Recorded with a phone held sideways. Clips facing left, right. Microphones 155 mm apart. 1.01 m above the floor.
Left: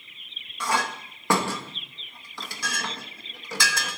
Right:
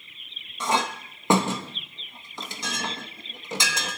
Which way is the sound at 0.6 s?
20° right (ahead or behind).